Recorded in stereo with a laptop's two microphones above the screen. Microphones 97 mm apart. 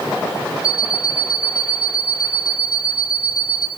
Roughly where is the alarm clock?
Right.